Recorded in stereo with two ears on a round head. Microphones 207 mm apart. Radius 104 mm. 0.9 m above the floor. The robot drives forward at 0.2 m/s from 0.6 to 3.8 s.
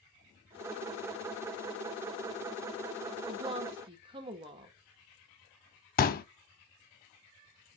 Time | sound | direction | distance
3.3 | a woman speaking | 25° right (ahead or behind) | 1.3 m
6.0 | a pop | 40° left (ahead or behind) | 0.7 m